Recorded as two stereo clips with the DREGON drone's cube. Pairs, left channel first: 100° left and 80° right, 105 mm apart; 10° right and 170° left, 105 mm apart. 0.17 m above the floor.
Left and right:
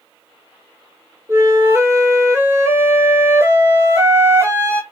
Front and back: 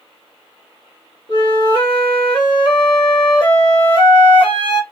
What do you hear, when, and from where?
1.3 s a flute: 20° right, 1.6 m